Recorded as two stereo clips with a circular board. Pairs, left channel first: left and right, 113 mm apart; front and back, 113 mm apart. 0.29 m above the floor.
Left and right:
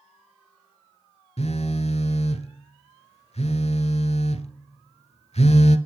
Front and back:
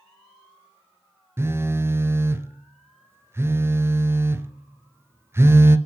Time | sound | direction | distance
1.4 | a phone buzzing | 110° left | 1.0 m